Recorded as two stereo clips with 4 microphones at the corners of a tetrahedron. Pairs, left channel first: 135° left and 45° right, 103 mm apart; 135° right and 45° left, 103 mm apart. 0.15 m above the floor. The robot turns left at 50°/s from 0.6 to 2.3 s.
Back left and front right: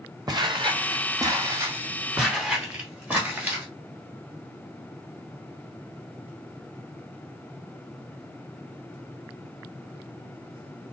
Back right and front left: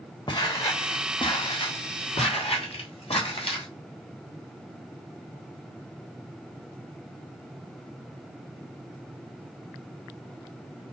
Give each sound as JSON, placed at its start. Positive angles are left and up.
{"t": 0.3, "sound": "footsteps", "azimuth_deg": -95, "distance_m": 1.0}